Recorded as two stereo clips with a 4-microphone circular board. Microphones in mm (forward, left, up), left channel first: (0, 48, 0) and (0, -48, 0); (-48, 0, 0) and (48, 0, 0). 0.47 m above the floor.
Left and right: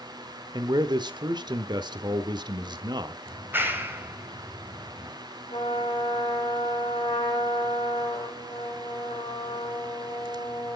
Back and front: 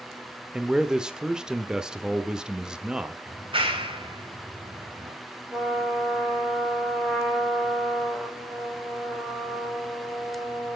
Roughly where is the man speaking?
Right.